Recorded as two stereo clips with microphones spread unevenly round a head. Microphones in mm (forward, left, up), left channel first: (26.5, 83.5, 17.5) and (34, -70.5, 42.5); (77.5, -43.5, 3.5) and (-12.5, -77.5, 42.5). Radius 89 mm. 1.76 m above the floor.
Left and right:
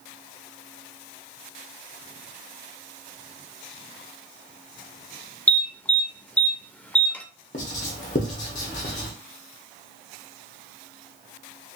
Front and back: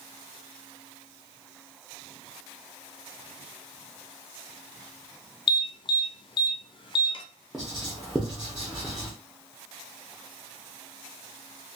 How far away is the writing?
About 0.7 m.